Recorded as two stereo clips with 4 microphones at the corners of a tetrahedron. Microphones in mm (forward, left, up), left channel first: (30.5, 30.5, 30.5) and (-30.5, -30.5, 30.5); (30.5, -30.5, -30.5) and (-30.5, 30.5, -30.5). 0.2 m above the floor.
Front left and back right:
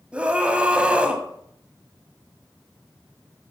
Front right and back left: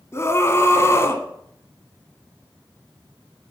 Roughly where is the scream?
Right.